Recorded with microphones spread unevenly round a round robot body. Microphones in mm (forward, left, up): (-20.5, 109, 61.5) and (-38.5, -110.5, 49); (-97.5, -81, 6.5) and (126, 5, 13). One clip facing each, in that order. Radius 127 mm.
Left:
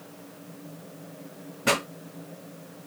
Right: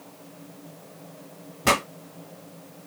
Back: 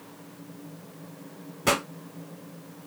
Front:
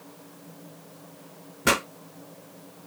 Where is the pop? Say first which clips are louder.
Right 2 dB, front 1 dB; 65° right, 3 m.